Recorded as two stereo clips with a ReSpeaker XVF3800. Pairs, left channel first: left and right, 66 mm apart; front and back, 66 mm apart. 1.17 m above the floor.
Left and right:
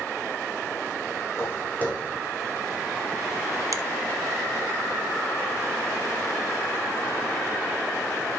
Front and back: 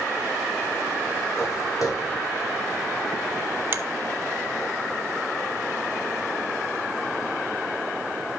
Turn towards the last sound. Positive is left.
turn(degrees=-120)